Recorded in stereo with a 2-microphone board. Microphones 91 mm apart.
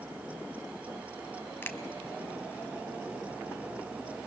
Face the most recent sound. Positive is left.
turn(degrees=25)  # may be behind; listen again after turning